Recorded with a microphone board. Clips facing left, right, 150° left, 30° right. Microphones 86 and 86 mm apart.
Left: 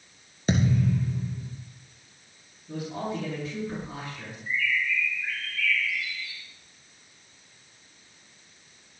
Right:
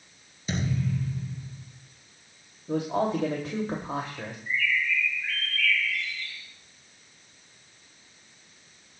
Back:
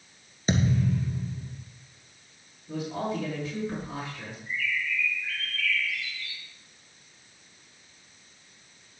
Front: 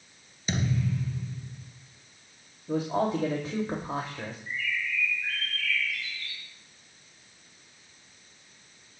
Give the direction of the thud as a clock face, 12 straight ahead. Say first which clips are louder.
Left 5 dB, back 4 dB; 9 o'clock.